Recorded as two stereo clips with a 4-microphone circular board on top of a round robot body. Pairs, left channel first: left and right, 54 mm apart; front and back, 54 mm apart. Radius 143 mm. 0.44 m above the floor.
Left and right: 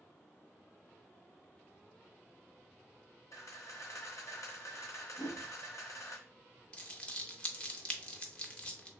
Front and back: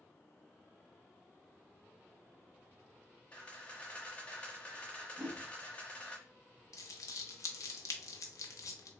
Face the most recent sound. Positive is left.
turn(degrees=20)